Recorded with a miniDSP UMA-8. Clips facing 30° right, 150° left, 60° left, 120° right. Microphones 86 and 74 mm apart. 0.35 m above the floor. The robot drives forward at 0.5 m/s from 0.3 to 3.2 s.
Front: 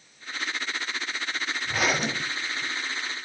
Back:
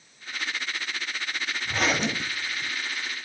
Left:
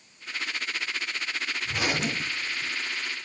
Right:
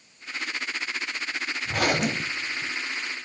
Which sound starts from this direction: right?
A zipper, at 1.6 s.